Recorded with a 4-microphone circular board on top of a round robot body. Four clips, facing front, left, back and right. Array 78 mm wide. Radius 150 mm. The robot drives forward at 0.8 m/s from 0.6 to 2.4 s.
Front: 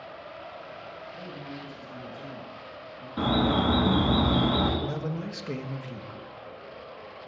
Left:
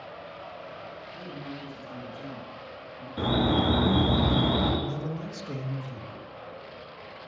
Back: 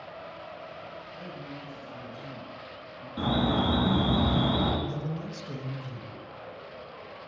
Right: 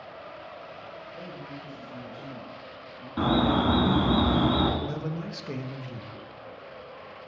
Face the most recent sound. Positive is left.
turn(degrees=-35)